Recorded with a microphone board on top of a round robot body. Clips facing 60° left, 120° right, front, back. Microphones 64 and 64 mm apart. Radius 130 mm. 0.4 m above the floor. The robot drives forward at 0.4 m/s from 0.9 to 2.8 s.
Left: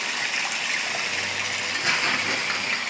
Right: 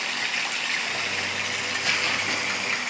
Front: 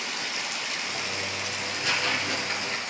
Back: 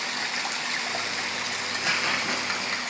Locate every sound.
0.0 s running water: 140° left, 2.5 m; by 2.9 s 150° left, 3 m
1.6 s tearing paper: 115° left, 5 m; by 2.8 s 120° left, 5 m